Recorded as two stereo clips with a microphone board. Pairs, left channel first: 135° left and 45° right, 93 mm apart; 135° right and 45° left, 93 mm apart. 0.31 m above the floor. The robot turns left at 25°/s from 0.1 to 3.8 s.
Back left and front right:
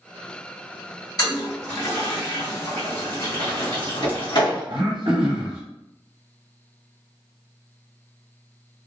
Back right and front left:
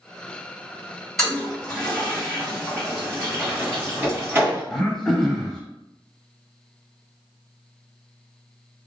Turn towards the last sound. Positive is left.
turn(degrees=-50)